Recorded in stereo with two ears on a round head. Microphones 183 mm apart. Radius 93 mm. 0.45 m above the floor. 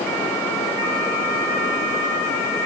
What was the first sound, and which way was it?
Only background noise.